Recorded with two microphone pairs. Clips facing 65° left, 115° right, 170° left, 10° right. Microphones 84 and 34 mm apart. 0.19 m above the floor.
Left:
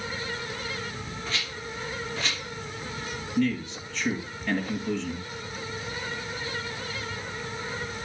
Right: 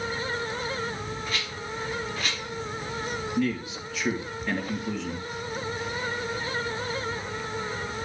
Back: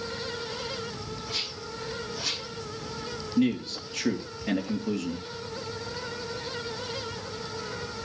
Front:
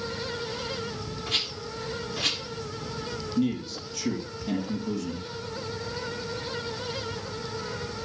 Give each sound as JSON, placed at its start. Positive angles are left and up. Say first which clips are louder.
{"t": 1.3, "sound": "a rattle", "louder": "right 2 dB, front 6 dB", "azimuth_deg": -35, "distance_m": 6.0}
{"t": 3.4, "sound": "a man speaking", "louder": "left 3 dB, back 2 dB", "azimuth_deg": 160, "distance_m": 3.5}